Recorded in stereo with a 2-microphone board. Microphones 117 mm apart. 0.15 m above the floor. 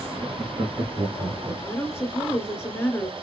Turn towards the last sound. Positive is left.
turn(degrees=20)  # may be behind; listen again after turning